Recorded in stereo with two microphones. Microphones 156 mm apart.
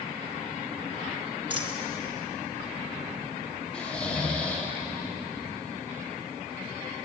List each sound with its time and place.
1.5 s a dropped coin: 30° right (ahead or behind), 1.7 m
3.7 s snoring: 5° left (ahead or behind), 2 m